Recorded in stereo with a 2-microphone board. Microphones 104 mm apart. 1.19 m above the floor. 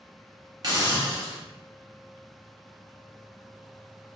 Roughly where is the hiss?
Right.